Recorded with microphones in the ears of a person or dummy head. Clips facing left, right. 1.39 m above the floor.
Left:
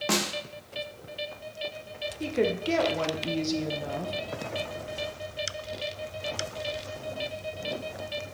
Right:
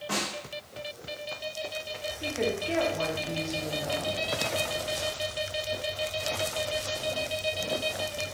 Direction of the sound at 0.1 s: 75° left (ahead or behind).